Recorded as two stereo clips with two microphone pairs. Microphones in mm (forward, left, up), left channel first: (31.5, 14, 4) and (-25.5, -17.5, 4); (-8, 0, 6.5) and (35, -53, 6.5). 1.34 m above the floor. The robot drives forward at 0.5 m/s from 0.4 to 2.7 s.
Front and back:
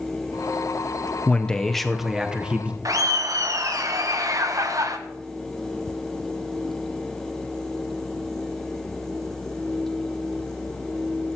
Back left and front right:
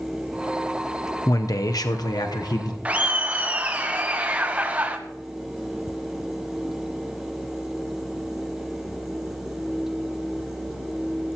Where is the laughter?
120° right, 0.9 m.